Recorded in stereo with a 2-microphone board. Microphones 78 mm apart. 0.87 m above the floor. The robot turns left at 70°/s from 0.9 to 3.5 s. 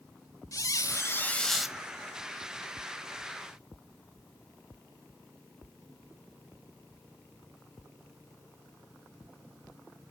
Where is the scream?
No scream in this recording.